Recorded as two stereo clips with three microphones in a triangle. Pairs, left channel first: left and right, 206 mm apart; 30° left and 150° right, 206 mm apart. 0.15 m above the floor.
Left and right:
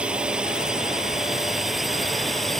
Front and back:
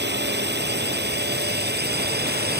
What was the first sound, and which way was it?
A drone, 175° right.